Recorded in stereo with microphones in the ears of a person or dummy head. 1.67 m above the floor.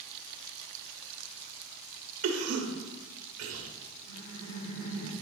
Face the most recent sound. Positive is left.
turn(degrees=85)